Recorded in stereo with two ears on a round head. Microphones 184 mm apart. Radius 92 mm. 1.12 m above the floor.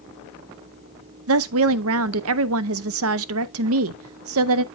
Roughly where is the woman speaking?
Right.